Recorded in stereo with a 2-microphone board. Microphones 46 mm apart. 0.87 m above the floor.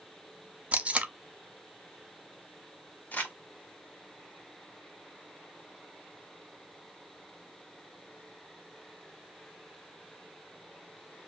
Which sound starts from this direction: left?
Crumpling, at 3.1 s.